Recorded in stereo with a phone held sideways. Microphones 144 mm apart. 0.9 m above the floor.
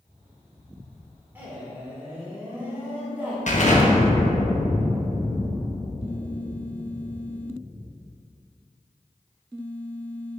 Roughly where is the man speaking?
Centre.